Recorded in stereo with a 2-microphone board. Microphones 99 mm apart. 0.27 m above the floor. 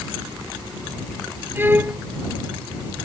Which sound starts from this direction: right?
A violin, at 1.6 s.